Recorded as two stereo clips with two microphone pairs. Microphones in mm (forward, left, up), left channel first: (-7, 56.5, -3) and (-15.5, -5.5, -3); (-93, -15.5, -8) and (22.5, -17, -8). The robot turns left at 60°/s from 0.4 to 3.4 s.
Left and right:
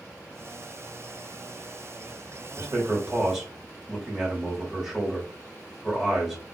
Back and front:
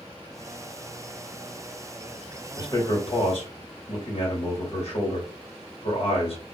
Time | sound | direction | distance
2.6 | a man speaking | 130° right | 1.5 m